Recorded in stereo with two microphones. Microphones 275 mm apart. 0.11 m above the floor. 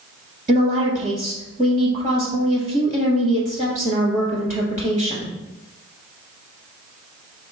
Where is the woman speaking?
30° right (ahead or behind), 1.4 m.